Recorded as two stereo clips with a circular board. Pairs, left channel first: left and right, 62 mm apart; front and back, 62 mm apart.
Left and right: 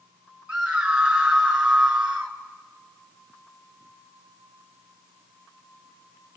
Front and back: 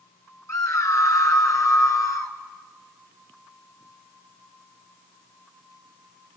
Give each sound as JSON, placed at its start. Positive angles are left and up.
{"t": 0.5, "sound": "a scream", "azimuth_deg": -20, "distance_m": 2.5}